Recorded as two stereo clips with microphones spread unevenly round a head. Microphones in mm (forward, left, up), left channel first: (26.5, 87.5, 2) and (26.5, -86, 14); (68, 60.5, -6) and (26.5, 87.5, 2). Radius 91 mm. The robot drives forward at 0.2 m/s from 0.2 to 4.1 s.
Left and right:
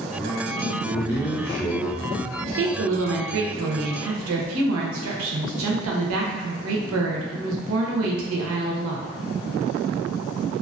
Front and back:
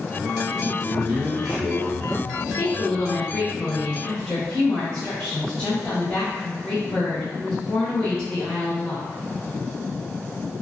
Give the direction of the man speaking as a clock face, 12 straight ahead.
7 o'clock.